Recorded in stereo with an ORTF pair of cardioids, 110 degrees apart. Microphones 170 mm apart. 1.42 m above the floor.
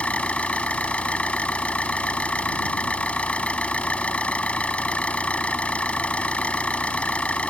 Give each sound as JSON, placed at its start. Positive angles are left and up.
{"t": 0.0, "sound": "an engine running", "azimuth_deg": 5}